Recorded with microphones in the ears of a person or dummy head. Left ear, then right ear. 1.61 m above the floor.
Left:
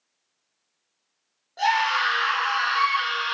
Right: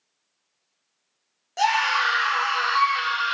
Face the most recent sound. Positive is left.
turn(degrees=-75)  # may be behind; listen again after turning